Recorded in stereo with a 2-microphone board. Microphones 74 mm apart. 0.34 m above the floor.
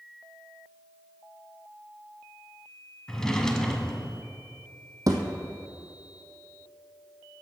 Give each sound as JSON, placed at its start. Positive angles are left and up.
{"t": 3.1, "sound": "a drawer", "side_deg": 5, "distance_m": 1.1}
{"t": 5.1, "sound": "a thud", "side_deg": -50, "distance_m": 1.5}